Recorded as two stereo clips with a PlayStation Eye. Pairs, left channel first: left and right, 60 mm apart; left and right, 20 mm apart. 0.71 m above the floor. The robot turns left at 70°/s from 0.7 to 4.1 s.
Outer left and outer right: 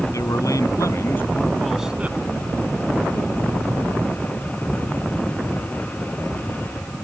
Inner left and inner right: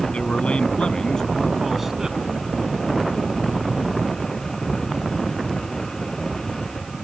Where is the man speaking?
70° left; by 2.2 s 35° right.